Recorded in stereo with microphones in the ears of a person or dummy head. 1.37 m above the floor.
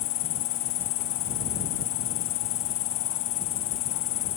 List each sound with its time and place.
0.0 s an insect: 55° left (ahead or behind)